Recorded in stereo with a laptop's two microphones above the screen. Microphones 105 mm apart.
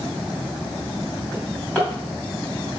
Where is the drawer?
15° left (ahead or behind), 2.5 m.